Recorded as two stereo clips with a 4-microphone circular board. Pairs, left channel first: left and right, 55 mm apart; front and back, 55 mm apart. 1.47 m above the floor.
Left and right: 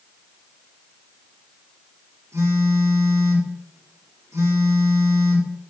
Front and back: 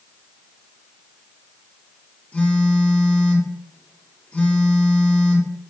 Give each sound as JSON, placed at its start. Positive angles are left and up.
{"t": 2.3, "sound": "a phone buzzing", "azimuth_deg": -65, "distance_m": 3.0}